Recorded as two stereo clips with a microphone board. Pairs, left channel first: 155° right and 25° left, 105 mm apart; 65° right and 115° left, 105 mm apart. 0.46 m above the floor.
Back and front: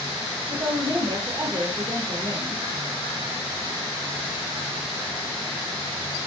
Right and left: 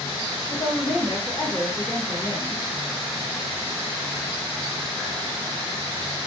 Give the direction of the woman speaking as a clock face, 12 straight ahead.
12 o'clock.